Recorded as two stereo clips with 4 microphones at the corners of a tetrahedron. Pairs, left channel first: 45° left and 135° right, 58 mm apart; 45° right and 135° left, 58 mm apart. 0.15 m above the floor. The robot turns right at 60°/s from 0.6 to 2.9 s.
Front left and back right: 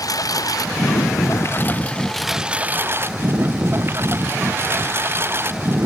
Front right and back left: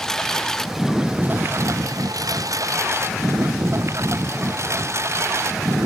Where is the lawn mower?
35° left; by 5.9 s 175° left.